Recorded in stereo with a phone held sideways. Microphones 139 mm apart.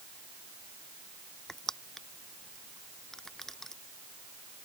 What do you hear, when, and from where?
1.5 s crushing: 5° left (ahead or behind)